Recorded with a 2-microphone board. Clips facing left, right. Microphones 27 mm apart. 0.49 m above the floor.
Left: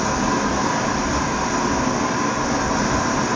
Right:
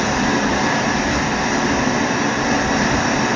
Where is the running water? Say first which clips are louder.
Right 2 dB; 65° right (ahead or behind), 3 m.